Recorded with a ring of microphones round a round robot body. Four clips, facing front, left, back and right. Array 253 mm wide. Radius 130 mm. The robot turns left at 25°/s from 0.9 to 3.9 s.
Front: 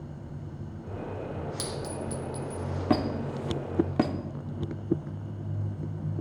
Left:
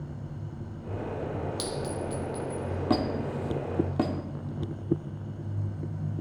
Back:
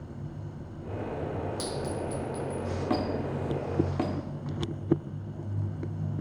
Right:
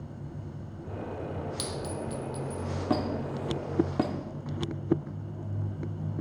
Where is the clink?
25° right, 0.9 m; by 2.6 s 50° right, 0.9 m.